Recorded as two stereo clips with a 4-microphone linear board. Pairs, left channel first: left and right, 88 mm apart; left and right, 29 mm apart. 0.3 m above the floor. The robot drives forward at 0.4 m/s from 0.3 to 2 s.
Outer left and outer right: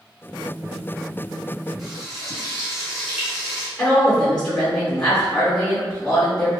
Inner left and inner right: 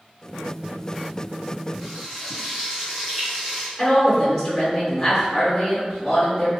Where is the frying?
Centre (ahead or behind), 1.8 m.